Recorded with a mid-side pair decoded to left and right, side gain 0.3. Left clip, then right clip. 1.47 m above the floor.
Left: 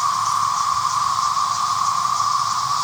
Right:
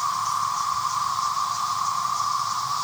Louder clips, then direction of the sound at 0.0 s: Left 5 dB; 55° left.